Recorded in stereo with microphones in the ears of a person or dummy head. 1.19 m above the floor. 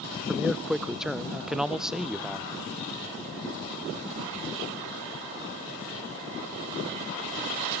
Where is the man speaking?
Centre (ahead or behind), 0.6 m.